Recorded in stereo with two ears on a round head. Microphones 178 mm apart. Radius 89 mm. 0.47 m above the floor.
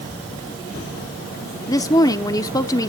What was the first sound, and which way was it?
A woman speaking, 20° left (ahead or behind).